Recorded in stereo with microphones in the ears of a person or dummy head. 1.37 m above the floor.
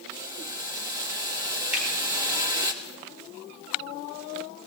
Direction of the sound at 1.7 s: 5° right (ahead or behind).